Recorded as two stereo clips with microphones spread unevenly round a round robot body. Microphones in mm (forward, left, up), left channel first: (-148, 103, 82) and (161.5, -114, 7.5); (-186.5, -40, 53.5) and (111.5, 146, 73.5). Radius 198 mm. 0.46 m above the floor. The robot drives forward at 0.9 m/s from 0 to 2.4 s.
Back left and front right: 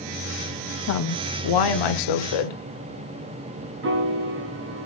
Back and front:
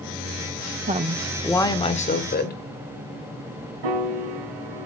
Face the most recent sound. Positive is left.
turn(degrees=25)